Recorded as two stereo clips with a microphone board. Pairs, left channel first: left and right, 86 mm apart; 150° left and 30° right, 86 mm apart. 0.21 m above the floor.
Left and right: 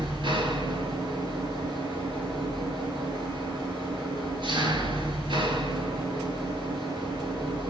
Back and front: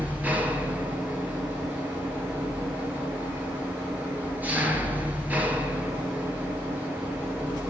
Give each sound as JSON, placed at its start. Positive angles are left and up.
{"t": 0.0, "sound": "an engine running", "azimuth_deg": -100, "distance_m": 3.0}